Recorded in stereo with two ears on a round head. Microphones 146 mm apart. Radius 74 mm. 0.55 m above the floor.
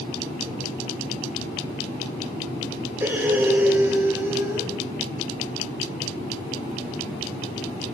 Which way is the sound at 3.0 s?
15° right (ahead or behind).